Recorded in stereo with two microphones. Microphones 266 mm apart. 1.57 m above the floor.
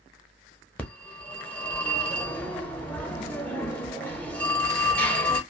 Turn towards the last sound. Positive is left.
turn(degrees=5)  # may be behind; listen again after turning